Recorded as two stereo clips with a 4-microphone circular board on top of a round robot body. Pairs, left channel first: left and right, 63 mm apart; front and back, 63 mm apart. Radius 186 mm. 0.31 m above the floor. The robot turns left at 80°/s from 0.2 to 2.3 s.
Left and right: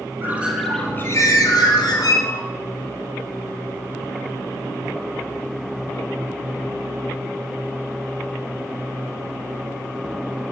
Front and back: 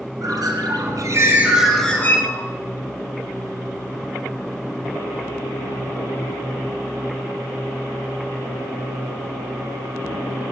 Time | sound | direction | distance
0.2 | a bird | 150° right | 4 m